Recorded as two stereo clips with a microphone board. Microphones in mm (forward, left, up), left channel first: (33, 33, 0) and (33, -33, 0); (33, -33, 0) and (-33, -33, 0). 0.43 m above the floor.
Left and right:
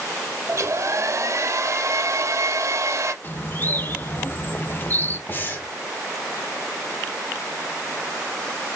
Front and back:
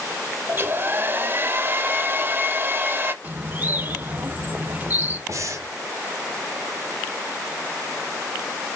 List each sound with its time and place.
0.5 s a hair dryer: 125° right, 0.6 m
3.2 s a bird: 135° left, 0.5 m
5.3 s breathing: 150° left, 1.2 m